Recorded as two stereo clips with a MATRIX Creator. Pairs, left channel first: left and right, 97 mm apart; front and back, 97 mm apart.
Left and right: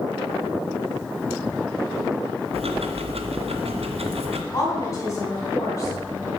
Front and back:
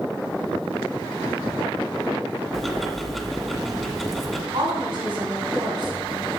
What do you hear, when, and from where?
2.5 s ticking: 90° right, 1.0 m
4.5 s a woman speaking: 145° left, 3.5 m